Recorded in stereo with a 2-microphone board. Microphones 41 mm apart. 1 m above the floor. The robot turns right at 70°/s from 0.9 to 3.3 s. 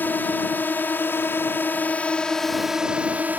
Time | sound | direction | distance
0.0 | a drone | 65° left | ?